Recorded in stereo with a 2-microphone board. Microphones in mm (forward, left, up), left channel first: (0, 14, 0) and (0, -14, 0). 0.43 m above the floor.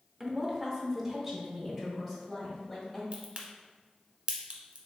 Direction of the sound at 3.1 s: 45° right (ahead or behind).